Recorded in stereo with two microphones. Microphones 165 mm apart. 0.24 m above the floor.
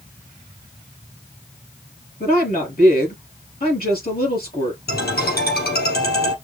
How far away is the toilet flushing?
No toilet flushing in this recording.